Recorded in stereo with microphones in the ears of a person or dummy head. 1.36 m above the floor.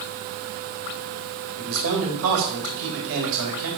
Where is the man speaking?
80° right, 3.5 m.